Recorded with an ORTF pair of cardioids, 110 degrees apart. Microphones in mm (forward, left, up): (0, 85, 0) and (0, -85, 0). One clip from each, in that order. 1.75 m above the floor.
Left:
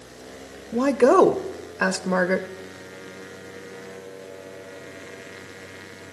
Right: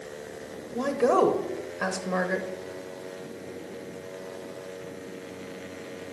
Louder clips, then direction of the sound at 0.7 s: Left 6 dB; 40° left.